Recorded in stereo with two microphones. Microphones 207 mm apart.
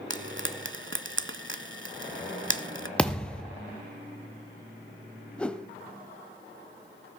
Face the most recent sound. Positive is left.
turn(degrees=5)  # may be behind; listen again after turning